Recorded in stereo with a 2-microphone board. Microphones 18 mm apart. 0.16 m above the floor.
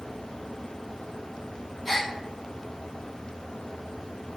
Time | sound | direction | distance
1.9 | a gasp | 5° right (ahead or behind) | 1.1 m